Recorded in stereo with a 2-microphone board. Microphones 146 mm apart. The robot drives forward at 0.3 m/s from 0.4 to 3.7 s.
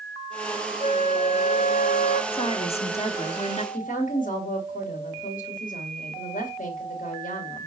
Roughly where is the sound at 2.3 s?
Left.